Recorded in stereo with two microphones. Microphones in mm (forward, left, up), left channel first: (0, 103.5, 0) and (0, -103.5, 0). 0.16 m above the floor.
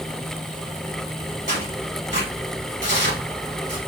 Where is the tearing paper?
70° right (ahead or behind), 4 m.